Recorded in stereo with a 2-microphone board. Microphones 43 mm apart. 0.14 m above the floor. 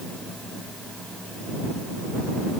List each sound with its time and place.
Only background noise.